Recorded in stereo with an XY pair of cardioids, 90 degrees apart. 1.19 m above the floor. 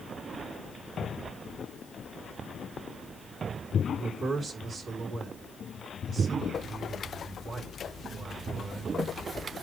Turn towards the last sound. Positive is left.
turn(degrees=-50)